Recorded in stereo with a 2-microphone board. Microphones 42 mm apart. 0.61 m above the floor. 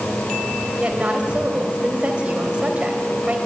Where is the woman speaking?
25° right (ahead or behind), 3 m.